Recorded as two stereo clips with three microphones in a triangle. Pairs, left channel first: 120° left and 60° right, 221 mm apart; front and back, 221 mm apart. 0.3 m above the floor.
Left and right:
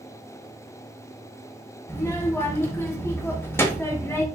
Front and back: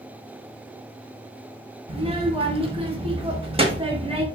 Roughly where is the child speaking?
Behind.